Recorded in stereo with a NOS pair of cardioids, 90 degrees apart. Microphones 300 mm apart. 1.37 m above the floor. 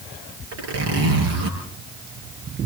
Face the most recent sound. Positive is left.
turn(degrees=-55)